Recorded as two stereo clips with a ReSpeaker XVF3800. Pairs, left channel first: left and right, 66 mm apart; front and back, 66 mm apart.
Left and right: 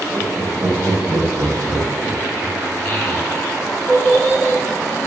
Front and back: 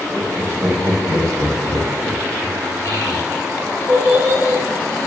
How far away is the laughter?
About 0.9 m.